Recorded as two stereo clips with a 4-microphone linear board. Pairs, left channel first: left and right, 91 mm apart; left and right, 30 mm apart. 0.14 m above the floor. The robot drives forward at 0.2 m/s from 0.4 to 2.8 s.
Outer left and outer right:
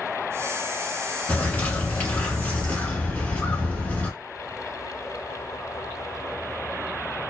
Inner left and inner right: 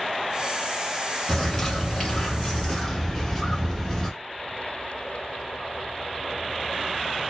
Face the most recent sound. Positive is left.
turn(degrees=20)  # may be behind; listen again after turning